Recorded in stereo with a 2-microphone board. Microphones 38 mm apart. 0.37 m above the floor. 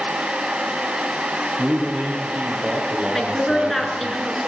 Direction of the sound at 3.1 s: Centre (ahead or behind).